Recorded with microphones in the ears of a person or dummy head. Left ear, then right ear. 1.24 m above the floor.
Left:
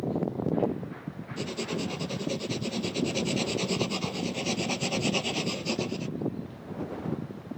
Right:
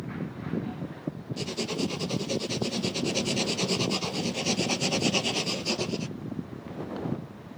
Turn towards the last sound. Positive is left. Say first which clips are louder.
# right 1 dB
turn(degrees=-5)  # may be behind; listen again after turning